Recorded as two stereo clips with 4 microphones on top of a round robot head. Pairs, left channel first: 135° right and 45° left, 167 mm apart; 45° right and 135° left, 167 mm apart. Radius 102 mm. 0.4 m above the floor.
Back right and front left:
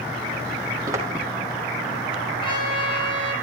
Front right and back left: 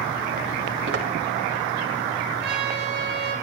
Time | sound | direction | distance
0.9 | footsteps | 115° left | 7 m
2.4 | a trumpet | 160° left | 5 m